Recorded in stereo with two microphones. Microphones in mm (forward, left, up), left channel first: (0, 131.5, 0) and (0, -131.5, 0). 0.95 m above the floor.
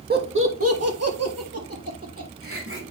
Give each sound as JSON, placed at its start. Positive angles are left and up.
{"t": 0.1, "sound": "laughter", "side_deg": -35, "distance_m": 1.5}